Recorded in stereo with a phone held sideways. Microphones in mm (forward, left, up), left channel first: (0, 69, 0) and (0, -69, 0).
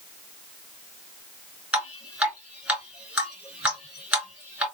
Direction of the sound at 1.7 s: 10° right (ahead or behind).